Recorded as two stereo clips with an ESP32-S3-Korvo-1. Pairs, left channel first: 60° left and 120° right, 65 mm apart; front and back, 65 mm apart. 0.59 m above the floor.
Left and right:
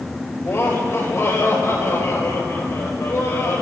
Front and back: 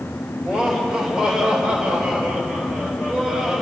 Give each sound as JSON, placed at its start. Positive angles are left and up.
{"t": 0.4, "sound": "laughter", "azimuth_deg": 105, "distance_m": 3.5}